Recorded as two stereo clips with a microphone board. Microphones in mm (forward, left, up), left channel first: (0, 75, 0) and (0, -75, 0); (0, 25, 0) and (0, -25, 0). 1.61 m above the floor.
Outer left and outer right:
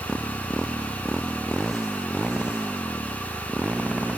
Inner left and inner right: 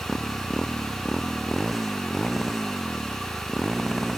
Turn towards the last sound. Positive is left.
turn(degrees=-10)  # may be behind; listen again after turning